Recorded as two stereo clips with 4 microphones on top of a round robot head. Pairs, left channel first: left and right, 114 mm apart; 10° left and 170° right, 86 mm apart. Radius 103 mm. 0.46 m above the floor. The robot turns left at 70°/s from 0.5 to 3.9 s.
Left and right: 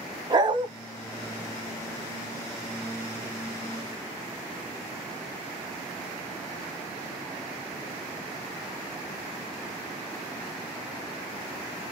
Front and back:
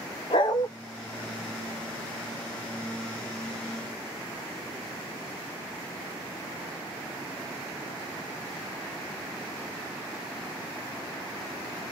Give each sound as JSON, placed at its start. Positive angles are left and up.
{"t": 0.3, "sound": "a dog barking", "azimuth_deg": -40, "distance_m": 1.5}